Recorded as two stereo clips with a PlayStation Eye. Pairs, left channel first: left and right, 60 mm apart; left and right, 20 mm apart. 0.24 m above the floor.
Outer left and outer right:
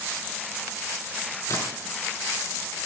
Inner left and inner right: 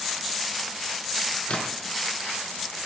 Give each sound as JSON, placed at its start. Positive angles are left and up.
{"t": 1.5, "sound": "a splash", "side_deg": 65, "distance_m": 3.5}